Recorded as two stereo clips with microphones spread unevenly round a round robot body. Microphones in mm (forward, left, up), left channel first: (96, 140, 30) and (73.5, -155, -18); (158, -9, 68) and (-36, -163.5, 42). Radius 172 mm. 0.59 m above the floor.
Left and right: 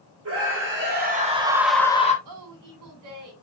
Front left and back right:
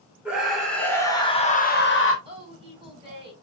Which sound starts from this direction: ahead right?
A scream, at 0.2 s.